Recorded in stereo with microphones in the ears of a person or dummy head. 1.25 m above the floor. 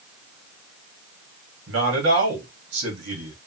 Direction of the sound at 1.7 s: 75° right (ahead or behind).